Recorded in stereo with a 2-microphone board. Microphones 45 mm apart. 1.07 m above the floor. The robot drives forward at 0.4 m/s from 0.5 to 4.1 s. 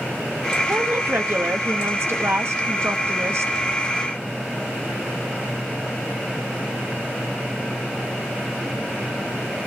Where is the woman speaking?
55° right (ahead or behind), 1.6 m; by 3.5 s 75° right (ahead or behind), 1.4 m.